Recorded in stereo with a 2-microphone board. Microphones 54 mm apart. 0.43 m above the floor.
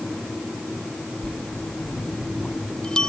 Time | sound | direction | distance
1.2 | a bell | 15° left (ahead or behind) | ?